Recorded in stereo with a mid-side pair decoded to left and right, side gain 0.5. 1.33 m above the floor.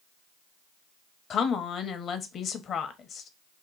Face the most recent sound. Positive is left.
turn(degrees=55)